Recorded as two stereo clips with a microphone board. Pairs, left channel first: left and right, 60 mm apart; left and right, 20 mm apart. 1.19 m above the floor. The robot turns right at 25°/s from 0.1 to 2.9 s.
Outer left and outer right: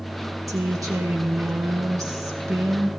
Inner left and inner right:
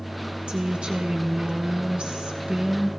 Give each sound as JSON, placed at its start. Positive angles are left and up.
{"t": 0.5, "sound": "a woman speaking", "azimuth_deg": -120, "distance_m": 1.2}